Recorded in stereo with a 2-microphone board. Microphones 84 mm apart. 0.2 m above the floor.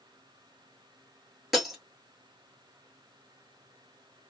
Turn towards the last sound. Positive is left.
turn(degrees=0)  # may be behind; listen again after turning